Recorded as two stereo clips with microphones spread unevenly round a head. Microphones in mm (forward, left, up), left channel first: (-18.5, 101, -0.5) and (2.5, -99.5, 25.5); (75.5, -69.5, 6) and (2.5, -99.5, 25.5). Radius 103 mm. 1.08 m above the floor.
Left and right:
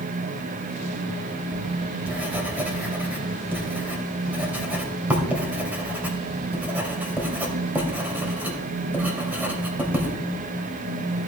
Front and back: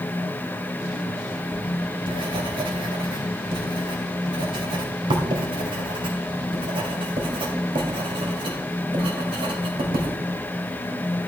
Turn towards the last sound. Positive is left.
turn(degrees=-165)